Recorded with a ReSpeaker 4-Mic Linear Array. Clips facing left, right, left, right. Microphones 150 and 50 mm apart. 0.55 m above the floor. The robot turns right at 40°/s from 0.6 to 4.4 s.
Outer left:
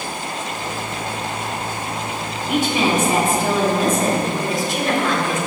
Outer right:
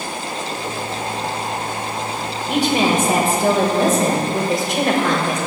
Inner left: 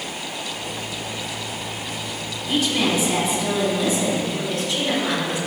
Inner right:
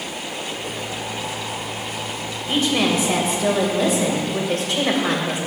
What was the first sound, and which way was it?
A woman speaking, 145° right.